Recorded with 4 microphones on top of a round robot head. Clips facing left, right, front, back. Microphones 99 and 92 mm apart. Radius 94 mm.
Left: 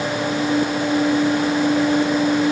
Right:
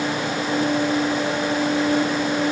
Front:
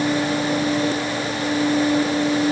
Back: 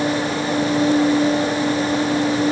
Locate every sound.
Only background noise.